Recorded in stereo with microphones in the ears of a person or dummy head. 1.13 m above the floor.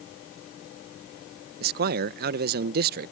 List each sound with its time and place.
1.6 s a man speaking: 50° right (ahead or behind)